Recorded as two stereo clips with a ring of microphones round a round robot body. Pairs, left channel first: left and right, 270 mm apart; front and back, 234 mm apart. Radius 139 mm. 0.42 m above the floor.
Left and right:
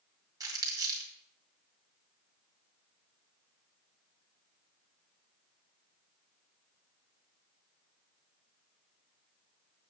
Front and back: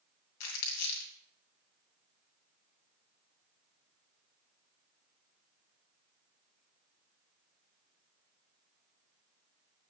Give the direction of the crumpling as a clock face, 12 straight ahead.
12 o'clock.